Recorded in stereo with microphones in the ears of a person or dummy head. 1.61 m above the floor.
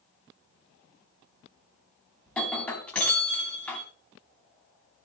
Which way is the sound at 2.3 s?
5° left (ahead or behind).